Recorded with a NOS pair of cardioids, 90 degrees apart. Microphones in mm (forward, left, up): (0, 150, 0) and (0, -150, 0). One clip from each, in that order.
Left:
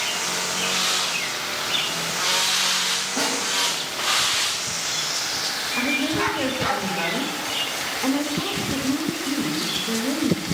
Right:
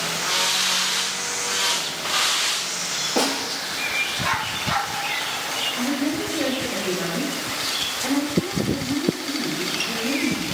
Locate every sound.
3.2 s a snare drum: 55° right, 3 m
5.8 s a woman speaking: 40° left, 1.8 m